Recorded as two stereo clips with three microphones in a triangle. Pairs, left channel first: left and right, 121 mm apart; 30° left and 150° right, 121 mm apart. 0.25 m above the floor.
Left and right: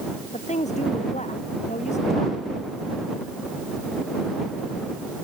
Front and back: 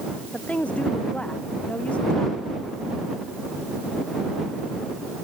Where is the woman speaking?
110° left.